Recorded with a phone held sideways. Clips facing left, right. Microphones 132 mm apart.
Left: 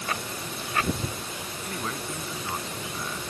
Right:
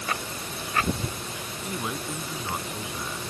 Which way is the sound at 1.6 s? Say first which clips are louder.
Right 2 dB; 15° right (ahead or behind).